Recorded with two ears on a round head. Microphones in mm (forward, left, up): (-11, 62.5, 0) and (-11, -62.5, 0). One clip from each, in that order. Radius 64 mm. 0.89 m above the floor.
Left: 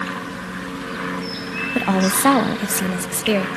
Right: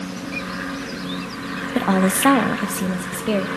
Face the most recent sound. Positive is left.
turn(degrees=55)  # may be behind; listen again after turning